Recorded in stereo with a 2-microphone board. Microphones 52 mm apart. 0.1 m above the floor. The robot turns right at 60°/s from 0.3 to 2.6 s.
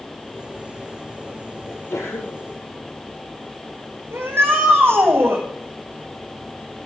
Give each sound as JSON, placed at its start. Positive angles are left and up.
{"t": 1.7, "sound": "a sneeze", "azimuth_deg": 50, "distance_m": 3.0}
{"t": 4.1, "sound": "a shout", "side_deg": -55, "distance_m": 6.5}